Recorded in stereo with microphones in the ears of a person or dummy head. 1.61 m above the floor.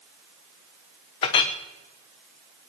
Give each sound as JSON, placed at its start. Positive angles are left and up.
{"t": 1.2, "sound": "a clink", "side_deg": 25, "distance_m": 0.8}